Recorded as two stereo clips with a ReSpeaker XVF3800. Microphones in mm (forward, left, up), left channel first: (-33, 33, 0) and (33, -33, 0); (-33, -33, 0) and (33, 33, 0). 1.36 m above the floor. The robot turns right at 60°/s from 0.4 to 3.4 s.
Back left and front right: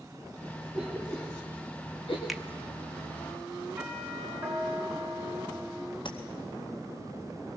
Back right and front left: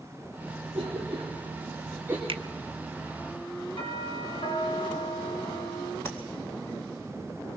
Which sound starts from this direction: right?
A doorbell, at 3.8 s.